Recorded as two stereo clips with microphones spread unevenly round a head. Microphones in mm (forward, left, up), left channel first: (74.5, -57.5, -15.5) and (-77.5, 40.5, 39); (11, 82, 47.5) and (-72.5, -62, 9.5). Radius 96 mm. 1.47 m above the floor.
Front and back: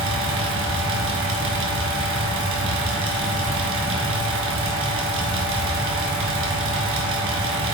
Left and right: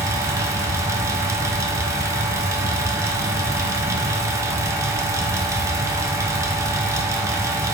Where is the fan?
170° left, 1.1 m.